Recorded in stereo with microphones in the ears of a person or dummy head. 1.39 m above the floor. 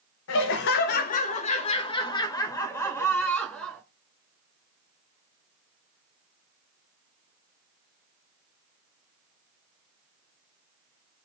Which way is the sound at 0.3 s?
75° left (ahead or behind).